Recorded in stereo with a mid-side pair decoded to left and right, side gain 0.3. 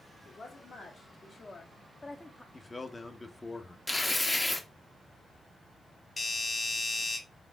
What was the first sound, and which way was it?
A woman speaking, 65° left.